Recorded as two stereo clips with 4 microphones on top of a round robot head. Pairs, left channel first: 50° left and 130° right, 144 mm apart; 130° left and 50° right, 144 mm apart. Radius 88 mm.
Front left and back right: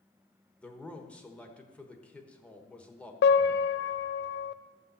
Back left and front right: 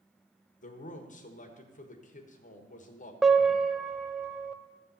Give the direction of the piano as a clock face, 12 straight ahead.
11 o'clock.